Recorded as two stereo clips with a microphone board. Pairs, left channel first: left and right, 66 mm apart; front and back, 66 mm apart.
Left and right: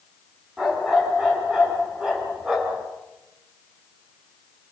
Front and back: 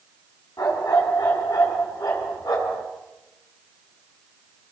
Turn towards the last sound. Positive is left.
turn(degrees=-10)